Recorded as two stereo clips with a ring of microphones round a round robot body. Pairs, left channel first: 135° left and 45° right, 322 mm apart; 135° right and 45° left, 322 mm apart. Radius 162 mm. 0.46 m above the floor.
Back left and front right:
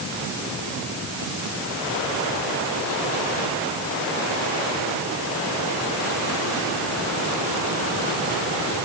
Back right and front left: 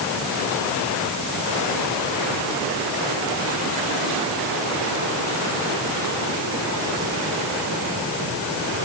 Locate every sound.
Only background noise.